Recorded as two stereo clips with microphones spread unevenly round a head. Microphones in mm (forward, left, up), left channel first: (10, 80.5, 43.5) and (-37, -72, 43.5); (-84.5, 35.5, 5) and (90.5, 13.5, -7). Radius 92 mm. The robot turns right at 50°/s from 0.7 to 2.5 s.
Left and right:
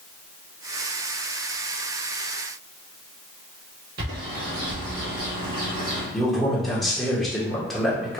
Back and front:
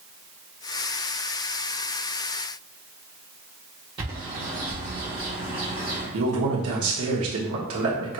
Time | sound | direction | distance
4.0 | a bird | 75° right | 1.4 m
6.1 | a man speaking | 15° right | 1.2 m